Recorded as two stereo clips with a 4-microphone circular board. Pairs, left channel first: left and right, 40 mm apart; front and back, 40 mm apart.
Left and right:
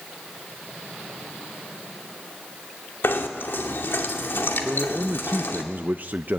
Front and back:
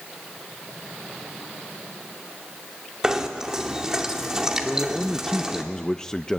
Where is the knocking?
105° left, 2.5 m.